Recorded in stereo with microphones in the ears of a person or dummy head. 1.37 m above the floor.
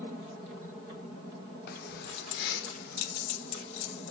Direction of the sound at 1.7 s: 65° left (ahead or behind).